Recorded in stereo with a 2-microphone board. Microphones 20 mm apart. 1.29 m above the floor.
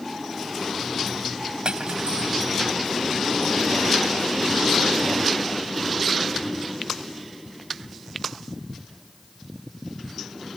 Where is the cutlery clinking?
55° right (ahead or behind).